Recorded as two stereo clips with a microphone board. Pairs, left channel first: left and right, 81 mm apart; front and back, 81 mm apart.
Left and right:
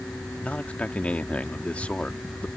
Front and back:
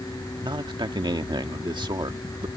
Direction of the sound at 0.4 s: 165° left.